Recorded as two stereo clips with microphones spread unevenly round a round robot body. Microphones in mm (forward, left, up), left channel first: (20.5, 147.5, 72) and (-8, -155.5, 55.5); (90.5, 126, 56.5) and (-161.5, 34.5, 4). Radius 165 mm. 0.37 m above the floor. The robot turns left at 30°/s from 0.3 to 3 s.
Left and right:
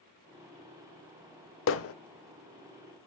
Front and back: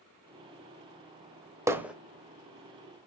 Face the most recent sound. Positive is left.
turn(degrees=90)